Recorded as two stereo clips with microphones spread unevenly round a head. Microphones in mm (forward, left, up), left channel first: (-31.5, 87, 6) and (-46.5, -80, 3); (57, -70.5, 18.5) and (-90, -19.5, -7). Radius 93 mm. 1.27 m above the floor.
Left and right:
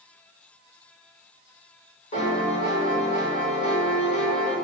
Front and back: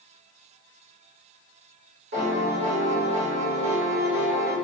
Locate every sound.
2.1 s a piano: 130° left, 1.9 m